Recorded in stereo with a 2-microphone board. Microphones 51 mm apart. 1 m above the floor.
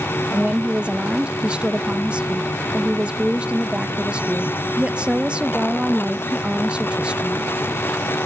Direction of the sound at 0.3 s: 20° right (ahead or behind).